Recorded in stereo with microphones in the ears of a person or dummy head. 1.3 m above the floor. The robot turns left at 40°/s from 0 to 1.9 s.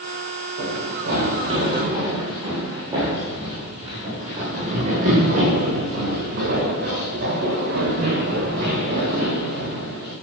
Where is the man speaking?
I don't hear a man speaking.